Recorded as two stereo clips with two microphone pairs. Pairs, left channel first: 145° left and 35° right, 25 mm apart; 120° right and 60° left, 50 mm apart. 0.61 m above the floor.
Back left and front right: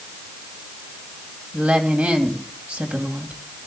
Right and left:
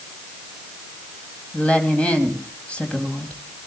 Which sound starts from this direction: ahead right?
A woman speaking, at 1.5 s.